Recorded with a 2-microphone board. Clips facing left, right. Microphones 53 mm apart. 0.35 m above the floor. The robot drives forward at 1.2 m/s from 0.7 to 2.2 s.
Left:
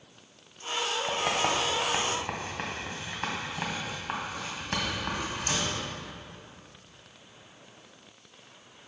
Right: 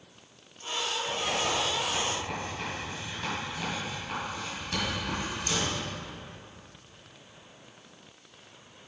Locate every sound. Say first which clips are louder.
1.1 s writing: left 2 dB; 55° left (ahead or behind), 1.6 m; by 5.7 s 40° left (ahead or behind), 2 m